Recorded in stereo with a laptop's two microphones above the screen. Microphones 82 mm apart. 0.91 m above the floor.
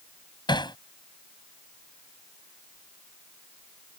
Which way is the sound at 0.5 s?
65° left (ahead or behind).